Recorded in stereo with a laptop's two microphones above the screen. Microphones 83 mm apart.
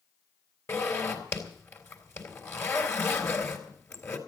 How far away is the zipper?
About 4 m.